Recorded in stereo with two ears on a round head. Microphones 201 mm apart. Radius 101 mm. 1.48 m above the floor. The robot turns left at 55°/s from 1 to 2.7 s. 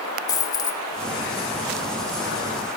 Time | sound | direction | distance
0.3 | a dropped coin | 15° left (ahead or behind) | 1.4 m